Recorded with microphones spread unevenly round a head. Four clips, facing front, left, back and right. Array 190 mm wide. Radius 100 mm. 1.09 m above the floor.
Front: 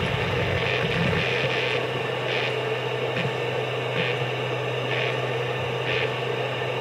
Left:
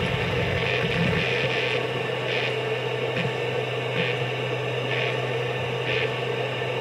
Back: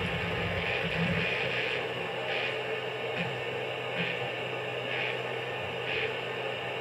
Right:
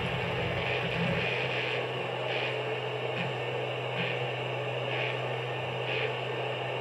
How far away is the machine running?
About 1.3 m.